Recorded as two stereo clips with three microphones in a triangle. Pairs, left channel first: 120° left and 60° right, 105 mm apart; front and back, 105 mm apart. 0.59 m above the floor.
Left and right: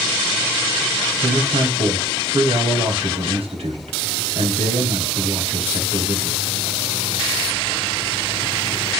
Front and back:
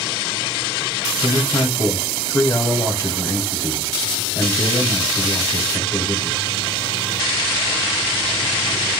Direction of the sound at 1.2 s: 55° right.